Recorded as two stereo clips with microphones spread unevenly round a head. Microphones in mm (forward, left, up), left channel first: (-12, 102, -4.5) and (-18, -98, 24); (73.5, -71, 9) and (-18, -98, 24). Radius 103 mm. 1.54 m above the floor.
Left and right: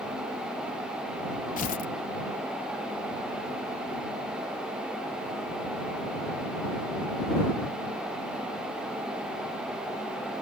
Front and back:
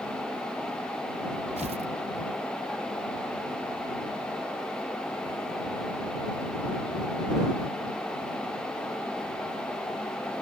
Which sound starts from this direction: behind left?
Tearing paper, at 1.6 s.